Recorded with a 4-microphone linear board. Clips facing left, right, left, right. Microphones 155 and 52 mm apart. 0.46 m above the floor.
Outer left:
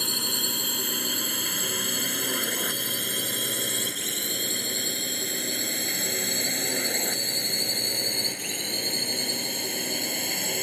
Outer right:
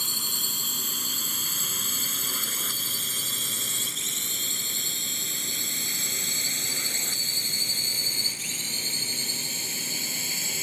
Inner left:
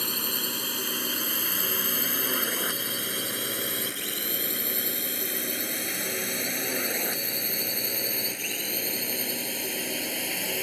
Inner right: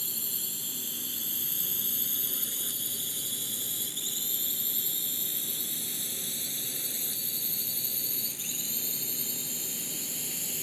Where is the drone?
65° left (ahead or behind); by 10.6 s 60° left (ahead or behind).